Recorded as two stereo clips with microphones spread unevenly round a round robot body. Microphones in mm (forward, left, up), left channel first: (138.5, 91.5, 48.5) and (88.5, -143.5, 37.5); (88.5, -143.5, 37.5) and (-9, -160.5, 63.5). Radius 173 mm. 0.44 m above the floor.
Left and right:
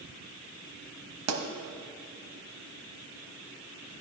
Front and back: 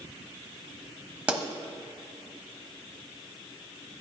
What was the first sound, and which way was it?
A pop, 90° right.